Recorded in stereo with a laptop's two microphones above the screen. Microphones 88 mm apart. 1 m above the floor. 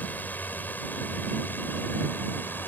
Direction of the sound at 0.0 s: 20° left (ahead or behind).